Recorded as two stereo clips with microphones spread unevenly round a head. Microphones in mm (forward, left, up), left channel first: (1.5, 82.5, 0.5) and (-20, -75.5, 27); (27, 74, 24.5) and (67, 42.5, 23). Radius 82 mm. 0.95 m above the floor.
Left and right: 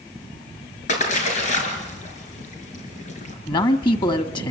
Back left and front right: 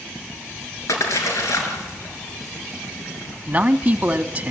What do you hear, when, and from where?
0.9 s a splash: 125° left, 5.5 m
3.5 s a man speaking: 25° left, 1.6 m